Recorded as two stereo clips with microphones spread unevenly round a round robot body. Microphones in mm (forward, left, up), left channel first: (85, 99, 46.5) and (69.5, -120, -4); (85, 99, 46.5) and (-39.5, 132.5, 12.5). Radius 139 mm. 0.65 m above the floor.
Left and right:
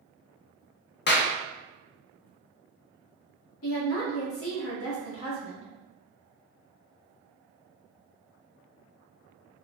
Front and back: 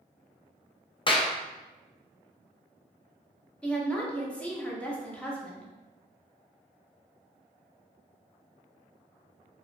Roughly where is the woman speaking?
Left.